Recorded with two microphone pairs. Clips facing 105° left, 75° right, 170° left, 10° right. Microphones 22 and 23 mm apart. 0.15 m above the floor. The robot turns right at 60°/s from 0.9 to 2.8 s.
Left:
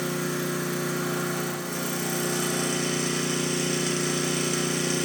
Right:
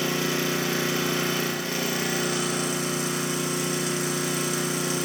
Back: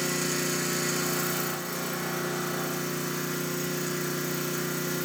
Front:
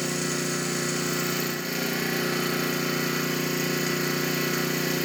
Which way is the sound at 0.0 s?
90° right.